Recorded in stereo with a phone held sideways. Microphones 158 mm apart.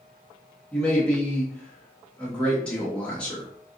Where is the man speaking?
5° left (ahead or behind), 1.3 m.